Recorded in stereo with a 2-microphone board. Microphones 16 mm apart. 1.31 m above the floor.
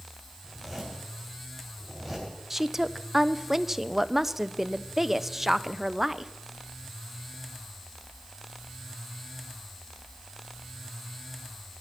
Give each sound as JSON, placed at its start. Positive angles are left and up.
{"t": 0.4, "sound": "a zipper", "side_deg": -5, "distance_m": 6.5}
{"t": 2.5, "sound": "a woman speaking", "side_deg": -15, "distance_m": 0.5}